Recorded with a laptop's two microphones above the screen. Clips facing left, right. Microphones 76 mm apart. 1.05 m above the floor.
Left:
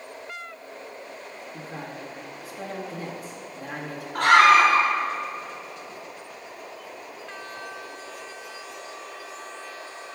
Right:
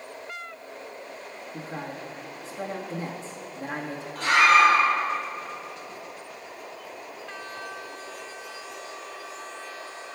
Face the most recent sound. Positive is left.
turn(degrees=70)  # may be behind; listen again after turning